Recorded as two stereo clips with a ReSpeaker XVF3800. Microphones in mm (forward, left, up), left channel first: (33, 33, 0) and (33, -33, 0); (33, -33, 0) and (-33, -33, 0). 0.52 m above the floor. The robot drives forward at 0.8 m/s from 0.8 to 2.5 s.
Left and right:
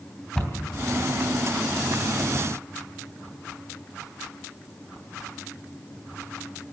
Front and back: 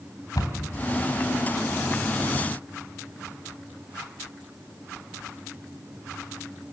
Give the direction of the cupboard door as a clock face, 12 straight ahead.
12 o'clock.